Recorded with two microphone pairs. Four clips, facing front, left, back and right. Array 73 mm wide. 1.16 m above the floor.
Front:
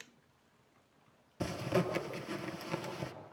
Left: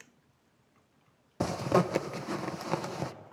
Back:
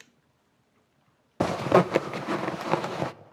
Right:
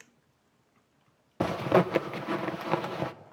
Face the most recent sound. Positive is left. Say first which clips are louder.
# right 3 dB, back 13 dB
turn(degrees=-170)